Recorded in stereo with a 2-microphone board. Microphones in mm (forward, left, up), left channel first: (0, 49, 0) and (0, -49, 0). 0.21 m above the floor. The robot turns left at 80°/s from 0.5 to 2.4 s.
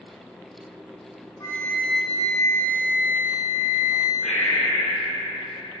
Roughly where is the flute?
Ahead left.